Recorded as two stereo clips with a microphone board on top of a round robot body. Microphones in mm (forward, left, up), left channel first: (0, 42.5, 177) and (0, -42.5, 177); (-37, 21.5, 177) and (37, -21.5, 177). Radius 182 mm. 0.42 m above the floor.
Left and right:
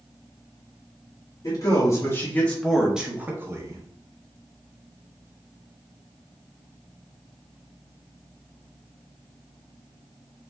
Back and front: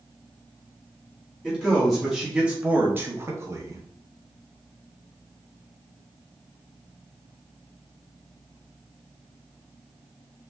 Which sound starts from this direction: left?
A man speaking, at 1.4 s.